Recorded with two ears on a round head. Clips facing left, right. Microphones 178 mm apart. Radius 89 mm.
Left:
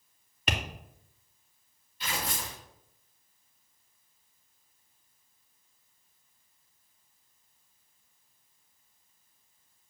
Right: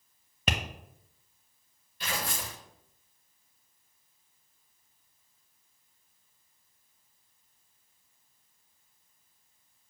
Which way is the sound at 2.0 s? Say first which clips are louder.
Even; 45° right (ahead or behind).